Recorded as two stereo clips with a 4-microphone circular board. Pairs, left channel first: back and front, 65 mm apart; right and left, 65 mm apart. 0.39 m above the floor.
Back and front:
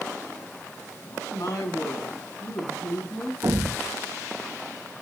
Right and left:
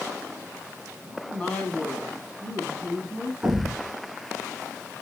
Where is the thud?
15° left, 1.2 m.